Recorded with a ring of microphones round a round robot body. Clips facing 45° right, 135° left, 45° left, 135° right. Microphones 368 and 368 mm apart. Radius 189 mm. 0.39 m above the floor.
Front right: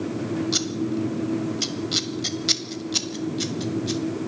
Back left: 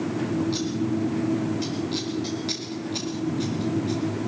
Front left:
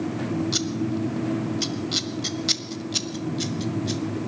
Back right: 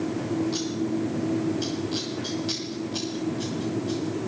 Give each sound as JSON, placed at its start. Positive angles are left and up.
{"t": 0.5, "sound": "scissors", "azimuth_deg": 5, "distance_m": 1.4}